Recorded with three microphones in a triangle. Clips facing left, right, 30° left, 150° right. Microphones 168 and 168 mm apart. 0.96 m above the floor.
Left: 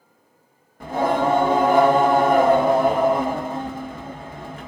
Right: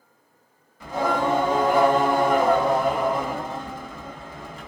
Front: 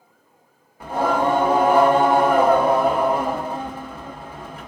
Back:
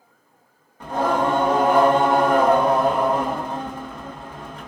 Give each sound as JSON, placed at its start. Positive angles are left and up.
{"t": 0.8, "sound": "singing", "azimuth_deg": 110, "distance_m": 1.1}